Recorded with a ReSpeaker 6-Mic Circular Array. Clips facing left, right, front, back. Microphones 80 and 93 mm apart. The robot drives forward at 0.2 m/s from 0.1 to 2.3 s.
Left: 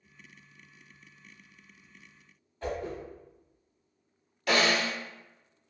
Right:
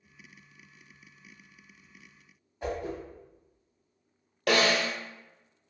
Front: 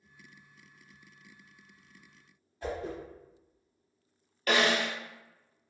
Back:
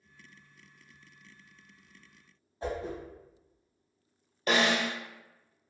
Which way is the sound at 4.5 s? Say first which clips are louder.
Right 1 dB, even; 110° right.